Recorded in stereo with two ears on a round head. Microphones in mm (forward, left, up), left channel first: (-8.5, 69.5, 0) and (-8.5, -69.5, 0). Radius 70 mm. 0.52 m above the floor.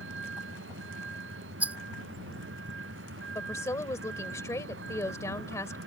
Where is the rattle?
10° right (ahead or behind).